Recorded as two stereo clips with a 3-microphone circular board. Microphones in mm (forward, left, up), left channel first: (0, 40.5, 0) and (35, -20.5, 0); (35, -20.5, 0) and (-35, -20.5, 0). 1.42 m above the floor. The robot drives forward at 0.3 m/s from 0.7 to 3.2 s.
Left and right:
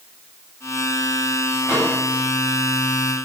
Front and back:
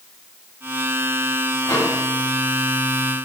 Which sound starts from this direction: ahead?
A microwave, at 1.6 s.